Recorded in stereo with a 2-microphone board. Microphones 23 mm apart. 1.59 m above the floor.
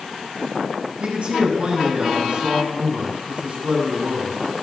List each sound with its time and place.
1.0 s a man speaking: 50° right (ahead or behind), 6.5 m